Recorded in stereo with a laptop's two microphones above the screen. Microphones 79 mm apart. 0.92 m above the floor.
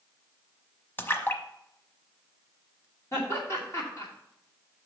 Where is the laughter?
40° left (ahead or behind), 2.5 m.